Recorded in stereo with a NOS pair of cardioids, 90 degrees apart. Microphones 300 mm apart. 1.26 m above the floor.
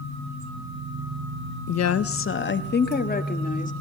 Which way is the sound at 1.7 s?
65° left.